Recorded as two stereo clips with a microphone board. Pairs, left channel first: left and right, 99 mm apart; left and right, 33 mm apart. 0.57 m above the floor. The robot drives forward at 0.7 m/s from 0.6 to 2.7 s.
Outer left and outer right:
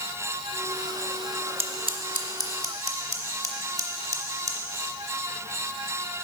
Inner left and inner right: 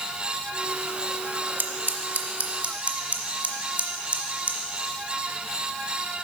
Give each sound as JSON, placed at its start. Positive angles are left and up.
{"t": 1.6, "sound": "scissors", "side_deg": -70, "distance_m": 0.5}